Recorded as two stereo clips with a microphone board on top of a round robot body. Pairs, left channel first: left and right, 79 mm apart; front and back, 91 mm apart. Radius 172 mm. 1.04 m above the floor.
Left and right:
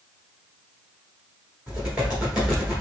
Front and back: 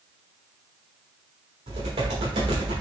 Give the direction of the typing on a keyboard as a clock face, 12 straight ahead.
6 o'clock.